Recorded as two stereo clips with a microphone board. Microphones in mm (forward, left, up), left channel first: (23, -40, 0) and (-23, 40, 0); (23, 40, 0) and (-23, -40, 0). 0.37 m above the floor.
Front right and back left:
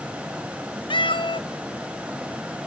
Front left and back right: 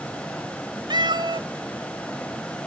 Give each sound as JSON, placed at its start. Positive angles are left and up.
{"t": 0.9, "sound": "a cat meowing", "azimuth_deg": -85, "distance_m": 0.8}